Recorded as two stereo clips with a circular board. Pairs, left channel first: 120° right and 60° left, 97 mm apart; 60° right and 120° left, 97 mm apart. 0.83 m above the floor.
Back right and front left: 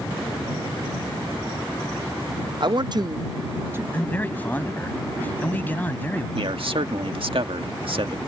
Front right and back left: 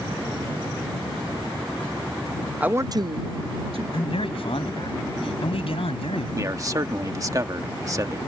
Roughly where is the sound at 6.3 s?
Left.